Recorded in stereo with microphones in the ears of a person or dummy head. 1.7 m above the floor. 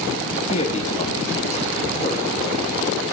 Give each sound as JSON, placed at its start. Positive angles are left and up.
{"t": 0.5, "sound": "a man speaking", "side_deg": 35, "distance_m": 4.0}